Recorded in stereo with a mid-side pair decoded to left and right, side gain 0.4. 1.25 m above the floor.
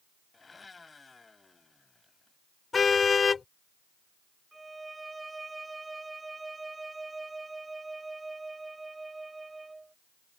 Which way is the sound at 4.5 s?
20° right.